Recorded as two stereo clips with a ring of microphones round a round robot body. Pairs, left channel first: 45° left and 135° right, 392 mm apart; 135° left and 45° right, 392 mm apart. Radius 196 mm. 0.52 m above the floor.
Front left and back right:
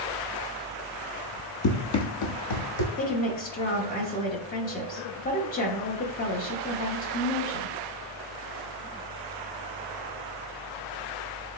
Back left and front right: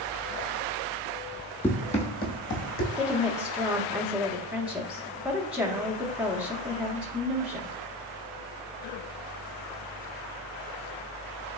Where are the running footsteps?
50° left, 0.6 m; by 2.9 s 80° left, 1.3 m.